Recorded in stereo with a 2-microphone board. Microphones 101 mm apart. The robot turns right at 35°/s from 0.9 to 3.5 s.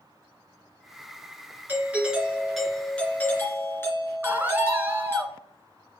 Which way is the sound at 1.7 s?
30° right.